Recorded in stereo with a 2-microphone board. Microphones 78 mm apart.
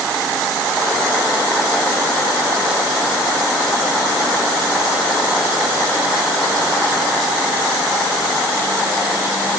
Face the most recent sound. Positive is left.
No sound to turn to.